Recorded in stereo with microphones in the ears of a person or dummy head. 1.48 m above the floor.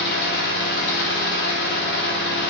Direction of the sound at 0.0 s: 55° left (ahead or behind).